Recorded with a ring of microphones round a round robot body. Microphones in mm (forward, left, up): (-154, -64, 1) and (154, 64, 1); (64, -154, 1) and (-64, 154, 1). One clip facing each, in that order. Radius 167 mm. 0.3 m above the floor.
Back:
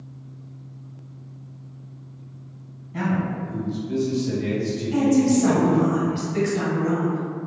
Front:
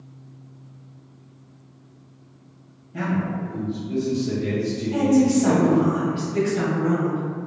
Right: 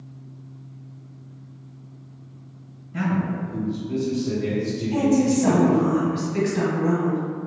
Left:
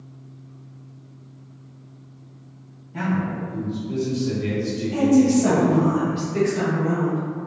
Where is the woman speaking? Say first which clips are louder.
Even, left 3 dB; 130° right, 1.3 m.